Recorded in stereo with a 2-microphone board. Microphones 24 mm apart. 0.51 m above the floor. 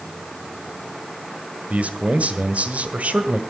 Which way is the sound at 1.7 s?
70° right (ahead or behind).